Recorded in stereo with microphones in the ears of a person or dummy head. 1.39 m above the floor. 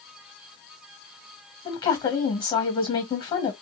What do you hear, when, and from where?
1.6 s a woman speaking: 25° left (ahead or behind), 1.3 m